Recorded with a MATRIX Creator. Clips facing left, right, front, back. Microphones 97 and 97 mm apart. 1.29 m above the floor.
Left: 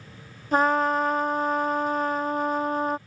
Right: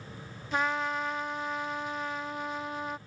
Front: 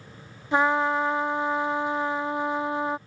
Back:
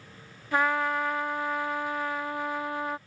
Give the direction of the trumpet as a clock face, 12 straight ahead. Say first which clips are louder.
Left 9 dB, front 4 dB; 10 o'clock.